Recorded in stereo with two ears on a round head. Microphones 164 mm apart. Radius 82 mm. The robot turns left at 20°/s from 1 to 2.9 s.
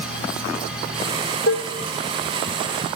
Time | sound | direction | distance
1.5 | dishes clattering | 60° left (ahead or behind) | 0.9 m